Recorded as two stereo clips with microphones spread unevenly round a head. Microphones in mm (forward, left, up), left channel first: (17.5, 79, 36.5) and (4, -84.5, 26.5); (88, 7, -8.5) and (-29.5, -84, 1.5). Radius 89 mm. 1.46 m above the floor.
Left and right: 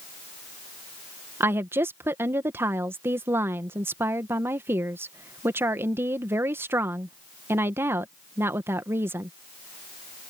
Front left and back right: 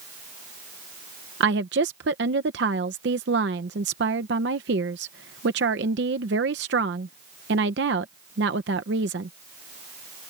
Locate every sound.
1.4 s a woman speaking: 170° right